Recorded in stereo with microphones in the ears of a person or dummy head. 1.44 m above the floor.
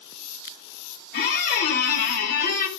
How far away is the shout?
No shout in this recording.